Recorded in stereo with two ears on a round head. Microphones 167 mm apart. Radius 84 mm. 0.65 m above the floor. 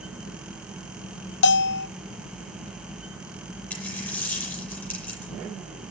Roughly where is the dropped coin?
Centre.